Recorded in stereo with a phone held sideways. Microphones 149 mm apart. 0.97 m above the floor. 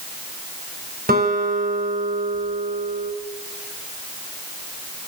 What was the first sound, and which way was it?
A guitar, 80° right.